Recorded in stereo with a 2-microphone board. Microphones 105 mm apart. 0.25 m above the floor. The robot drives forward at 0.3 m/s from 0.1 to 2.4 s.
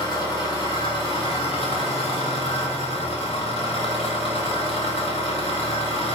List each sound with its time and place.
0.0 s an engine running: 45° left (ahead or behind), 1.0 m; by 6.2 s 70° left (ahead or behind), 0.8 m